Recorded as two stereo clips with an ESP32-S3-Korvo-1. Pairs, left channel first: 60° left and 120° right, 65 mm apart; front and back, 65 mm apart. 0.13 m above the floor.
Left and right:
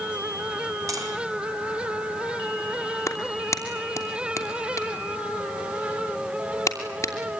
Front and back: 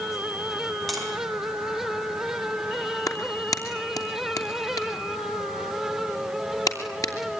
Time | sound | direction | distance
0.9 | tapping | 90° right | 6 m
3.1 | a clap | 20° left | 3 m